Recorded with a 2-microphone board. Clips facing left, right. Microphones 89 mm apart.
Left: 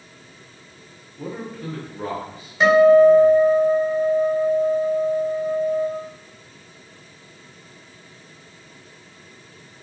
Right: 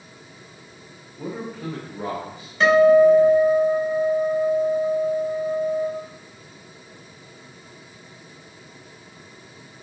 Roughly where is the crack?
I don't hear a crack.